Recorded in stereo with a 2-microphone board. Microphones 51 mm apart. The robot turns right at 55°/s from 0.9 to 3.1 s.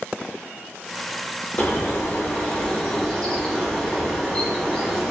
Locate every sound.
1.6 s a bird: 75° left, 1.2 m; by 5.1 s 160° left, 1.2 m